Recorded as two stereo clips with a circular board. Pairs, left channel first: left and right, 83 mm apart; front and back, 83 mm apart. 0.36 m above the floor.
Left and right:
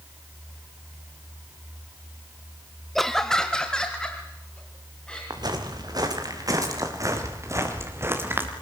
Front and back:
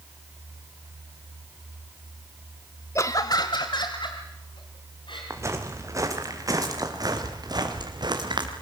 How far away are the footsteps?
About 4.5 m.